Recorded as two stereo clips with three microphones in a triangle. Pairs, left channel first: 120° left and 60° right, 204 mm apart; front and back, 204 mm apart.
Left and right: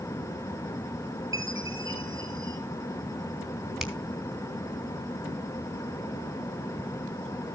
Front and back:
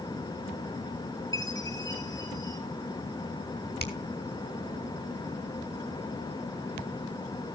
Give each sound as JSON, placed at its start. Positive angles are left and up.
{"t": 1.3, "sound": "a chime", "azimuth_deg": -70, "distance_m": 2.5}
{"t": 3.8, "sound": "a finger snap", "azimuth_deg": 30, "distance_m": 3.0}